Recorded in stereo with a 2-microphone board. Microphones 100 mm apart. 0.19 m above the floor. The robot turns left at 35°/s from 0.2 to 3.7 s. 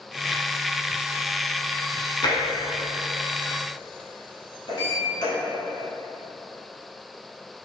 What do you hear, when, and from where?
2.2 s tapping: 50° left (ahead or behind), 0.9 m; by 2.4 s 45° left (ahead or behind), 0.9 m
4.7 s a sliding door: 50° left (ahead or behind), 1.5 m